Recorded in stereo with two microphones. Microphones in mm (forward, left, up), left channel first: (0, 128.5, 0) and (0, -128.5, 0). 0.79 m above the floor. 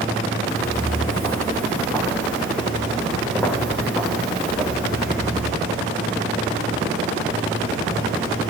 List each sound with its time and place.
0.5 s footsteps: 10° left (ahead or behind), 5 m; by 5.5 s 5° right (ahead or behind), 7.5 m